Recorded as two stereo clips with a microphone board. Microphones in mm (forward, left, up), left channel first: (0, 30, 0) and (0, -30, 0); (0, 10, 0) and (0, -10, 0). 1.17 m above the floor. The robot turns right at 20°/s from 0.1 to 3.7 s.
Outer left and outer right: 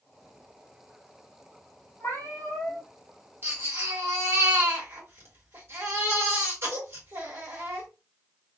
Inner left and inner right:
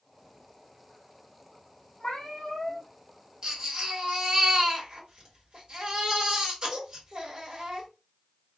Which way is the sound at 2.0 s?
50° left (ahead or behind).